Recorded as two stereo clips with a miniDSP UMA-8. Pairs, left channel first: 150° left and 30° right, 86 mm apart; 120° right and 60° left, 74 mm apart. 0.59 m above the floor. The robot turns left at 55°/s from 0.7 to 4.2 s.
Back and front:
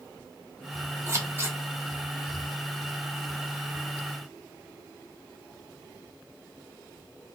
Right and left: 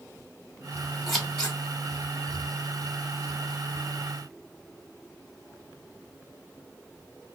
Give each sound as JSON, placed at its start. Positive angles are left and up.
{"t": 1.1, "sound": "scissors", "azimuth_deg": -30, "distance_m": 1.1}